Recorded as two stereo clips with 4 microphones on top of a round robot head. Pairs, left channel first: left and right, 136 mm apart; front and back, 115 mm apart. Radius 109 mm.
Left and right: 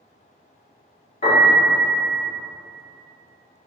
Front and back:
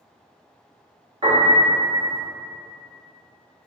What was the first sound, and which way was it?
A piano, 130° left.